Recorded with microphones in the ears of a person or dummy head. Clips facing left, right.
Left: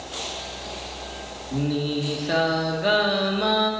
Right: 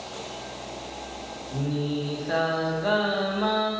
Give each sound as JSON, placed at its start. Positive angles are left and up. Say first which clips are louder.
{"t": 1.5, "sound": "singing", "louder": "left 3 dB", "side_deg": 35, "distance_m": 1.2}